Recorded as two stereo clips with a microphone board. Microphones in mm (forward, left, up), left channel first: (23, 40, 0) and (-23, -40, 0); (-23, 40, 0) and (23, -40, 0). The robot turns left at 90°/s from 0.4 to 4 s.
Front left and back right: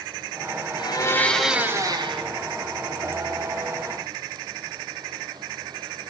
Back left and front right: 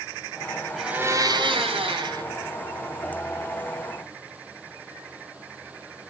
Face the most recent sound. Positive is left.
turn(degrees=95)